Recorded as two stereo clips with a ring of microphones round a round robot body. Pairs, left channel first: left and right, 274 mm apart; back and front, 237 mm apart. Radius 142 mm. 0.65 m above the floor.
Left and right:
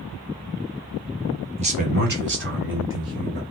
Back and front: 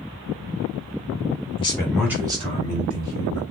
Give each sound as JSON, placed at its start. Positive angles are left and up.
{"t": 1.6, "sound": "a man speaking", "azimuth_deg": -135, "distance_m": 1.1}